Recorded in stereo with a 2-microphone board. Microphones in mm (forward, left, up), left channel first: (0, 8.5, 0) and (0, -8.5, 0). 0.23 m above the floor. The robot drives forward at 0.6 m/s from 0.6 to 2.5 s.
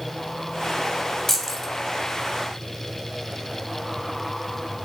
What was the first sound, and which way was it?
Keys jangling, 20° left (ahead or behind).